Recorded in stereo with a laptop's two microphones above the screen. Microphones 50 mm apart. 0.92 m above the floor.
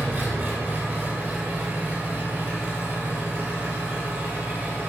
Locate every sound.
0.0 s an engine running: 45° right (ahead or behind), 1.2 m